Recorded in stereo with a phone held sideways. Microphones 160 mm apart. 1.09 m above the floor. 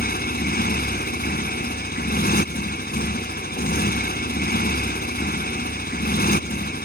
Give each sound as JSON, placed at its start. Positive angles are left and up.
{"t": 0.0, "sound": "a motorcycle", "side_deg": 75}